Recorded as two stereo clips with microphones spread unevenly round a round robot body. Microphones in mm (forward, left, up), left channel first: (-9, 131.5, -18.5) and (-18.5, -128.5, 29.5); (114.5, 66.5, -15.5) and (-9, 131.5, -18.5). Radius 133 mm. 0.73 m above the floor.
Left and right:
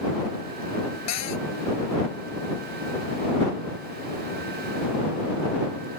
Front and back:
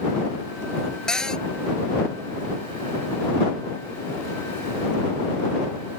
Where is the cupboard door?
55° left.